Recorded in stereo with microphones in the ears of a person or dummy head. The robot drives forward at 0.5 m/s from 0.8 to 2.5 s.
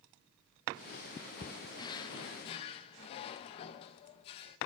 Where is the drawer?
25° left (ahead or behind), 0.8 m; by 4.6 s 30° left (ahead or behind), 0.7 m.